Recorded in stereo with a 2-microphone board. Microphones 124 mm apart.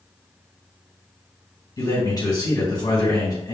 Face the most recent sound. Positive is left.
turn(degrees=30)  # may be behind; listen again after turning